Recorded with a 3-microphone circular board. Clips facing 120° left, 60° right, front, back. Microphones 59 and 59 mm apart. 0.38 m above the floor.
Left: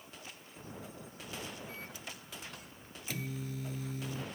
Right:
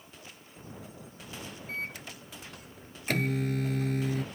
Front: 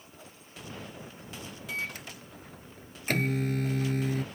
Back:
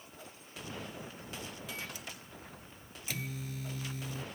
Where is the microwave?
35° right.